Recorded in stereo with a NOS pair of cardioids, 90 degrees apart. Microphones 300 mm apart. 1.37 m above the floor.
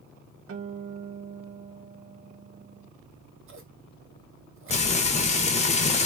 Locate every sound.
0.5 s a guitar: 45° right, 0.6 m
3.0 s scissors: 45° right, 0.9 m
4.7 s frying: 25° left, 0.8 m